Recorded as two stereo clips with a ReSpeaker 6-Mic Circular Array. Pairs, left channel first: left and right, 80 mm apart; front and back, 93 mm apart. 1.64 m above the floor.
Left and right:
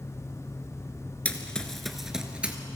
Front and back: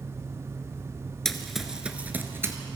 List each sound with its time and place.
1.2 s running footsteps: 70° left, 1.6 m; by 2.6 s 150° right, 1.8 m